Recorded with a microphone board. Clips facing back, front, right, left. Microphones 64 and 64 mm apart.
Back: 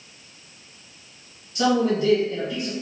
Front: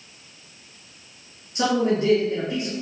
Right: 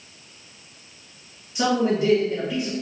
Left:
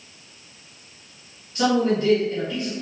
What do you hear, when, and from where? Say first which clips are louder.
1.6 s a man speaking: back 1 dB, left 1 dB; 30° right, 1.7 m